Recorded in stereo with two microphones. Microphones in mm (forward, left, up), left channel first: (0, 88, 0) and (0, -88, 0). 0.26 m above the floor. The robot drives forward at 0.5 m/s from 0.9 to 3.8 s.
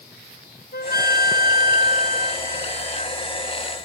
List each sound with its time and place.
0.7 s a flute: 70° left (ahead or behind); by 3.2 s 40° left (ahead or behind)